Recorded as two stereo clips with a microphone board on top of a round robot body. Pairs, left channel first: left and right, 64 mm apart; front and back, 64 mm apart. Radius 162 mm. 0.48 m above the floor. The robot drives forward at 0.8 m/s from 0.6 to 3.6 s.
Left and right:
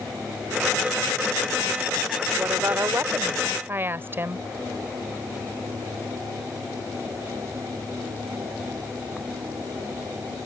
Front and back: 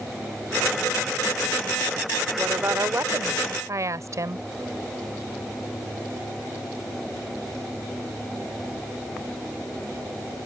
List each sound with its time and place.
2.4 s a woman speaking: 130° right; by 4.4 s 145° right